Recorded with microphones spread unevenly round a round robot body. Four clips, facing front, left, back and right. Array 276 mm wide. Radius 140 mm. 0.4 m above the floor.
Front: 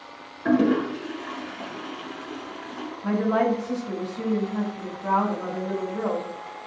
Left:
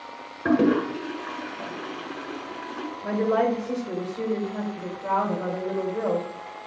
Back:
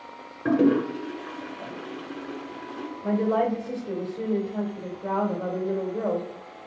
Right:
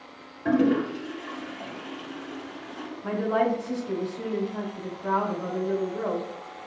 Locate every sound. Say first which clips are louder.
0.5 s a toilet flushing: left 2 dB, even; 115° left, 1.2 m
3.0 s a woman speaking: left 2 dB, front 1 dB; 160° left, 1.9 m